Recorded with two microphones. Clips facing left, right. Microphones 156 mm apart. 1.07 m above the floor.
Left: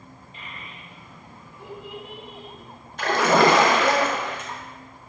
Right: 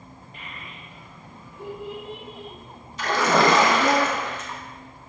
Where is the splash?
55° left (ahead or behind), 0.6 m.